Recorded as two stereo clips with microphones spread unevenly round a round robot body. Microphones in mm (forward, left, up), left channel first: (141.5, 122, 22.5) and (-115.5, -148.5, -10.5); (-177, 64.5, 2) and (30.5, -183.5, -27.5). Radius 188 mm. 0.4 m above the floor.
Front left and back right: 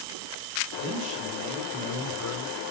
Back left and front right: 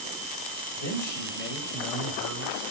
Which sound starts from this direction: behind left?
A man speaking, at 0.8 s.